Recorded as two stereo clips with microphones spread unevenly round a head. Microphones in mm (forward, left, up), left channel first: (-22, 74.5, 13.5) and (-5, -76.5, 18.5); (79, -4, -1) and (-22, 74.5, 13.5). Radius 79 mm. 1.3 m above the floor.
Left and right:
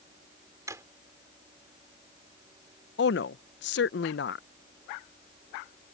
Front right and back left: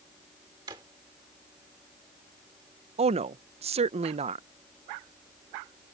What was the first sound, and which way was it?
A drawer, 155° right.